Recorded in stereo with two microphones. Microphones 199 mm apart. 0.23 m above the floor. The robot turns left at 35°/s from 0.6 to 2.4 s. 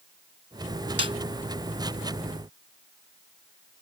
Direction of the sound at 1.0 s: 65° left (ahead or behind).